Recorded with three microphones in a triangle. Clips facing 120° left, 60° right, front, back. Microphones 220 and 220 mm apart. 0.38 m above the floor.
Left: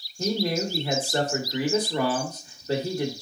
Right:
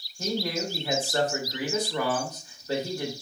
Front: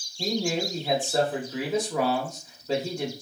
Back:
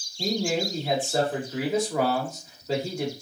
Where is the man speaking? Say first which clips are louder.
Left 4 dB, back 1 dB; 100° left, 0.9 m.